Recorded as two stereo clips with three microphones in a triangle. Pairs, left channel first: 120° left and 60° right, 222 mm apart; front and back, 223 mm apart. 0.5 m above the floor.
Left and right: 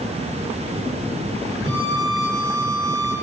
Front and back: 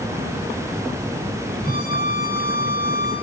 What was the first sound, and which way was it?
A violin, 130° right.